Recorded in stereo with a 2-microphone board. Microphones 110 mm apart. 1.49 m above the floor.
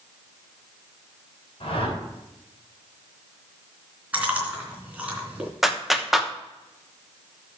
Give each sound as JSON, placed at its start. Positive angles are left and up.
{"t": 1.6, "sound": "a whoosh", "side_deg": 55, "distance_m": 5.0}
{"t": 4.1, "sound": "chewing", "side_deg": -15, "distance_m": 3.0}
{"t": 5.6, "sound": "a clap", "side_deg": 0, "distance_m": 0.9}